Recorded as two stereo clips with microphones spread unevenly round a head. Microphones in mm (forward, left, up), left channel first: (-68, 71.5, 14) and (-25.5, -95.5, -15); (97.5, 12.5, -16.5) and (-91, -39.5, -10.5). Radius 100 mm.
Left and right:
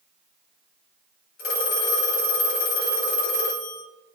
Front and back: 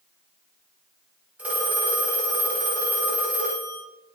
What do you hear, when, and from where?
1.4 s a phone ringing: 115° left, 1.2 m